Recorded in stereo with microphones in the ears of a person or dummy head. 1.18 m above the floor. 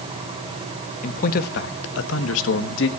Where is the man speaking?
40° left (ahead or behind), 1.3 m; by 2.9 s 70° left (ahead or behind), 1.5 m.